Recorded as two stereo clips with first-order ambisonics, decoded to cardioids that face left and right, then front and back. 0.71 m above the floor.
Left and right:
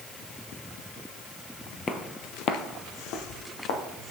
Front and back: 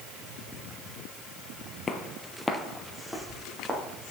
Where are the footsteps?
50° left, 0.7 m; by 4.1 s 100° left, 2.5 m.